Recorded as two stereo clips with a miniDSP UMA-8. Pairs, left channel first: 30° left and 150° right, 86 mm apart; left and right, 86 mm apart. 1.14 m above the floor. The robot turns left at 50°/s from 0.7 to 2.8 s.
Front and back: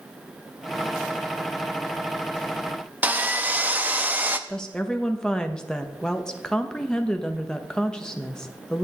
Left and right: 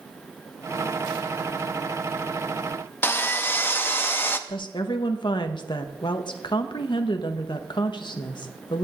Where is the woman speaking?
110° left, 0.9 m.